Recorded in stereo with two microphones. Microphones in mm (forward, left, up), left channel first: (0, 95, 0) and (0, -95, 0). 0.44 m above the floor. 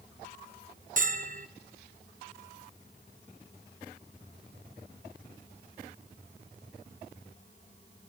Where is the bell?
45° right (ahead or behind), 0.8 m.